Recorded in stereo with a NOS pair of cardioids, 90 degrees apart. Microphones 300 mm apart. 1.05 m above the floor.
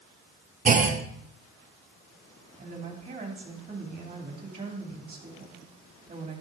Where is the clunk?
25° right, 0.9 m.